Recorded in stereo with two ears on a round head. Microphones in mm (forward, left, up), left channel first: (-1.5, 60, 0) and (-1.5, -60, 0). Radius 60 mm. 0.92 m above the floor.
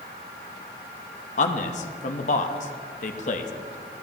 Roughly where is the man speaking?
Left.